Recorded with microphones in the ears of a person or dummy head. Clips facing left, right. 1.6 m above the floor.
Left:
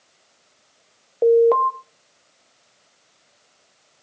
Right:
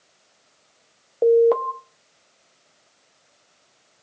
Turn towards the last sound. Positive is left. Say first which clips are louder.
# left 1 dB
turn(degrees=-5)  # may be behind; listen again after turning